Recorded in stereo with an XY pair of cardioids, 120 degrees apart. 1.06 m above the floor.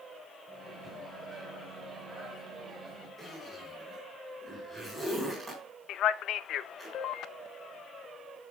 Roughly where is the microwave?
Ahead right.